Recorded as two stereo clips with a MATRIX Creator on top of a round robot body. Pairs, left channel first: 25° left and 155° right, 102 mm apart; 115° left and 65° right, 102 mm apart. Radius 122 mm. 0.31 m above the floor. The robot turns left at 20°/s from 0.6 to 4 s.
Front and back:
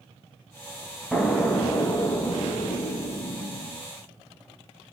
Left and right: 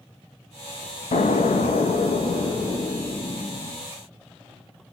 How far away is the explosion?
About 0.6 m.